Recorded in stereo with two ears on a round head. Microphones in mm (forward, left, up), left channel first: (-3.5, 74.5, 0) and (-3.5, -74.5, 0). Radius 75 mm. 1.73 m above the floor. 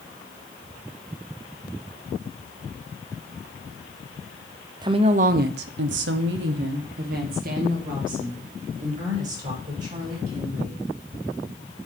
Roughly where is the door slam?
No door slam in this recording.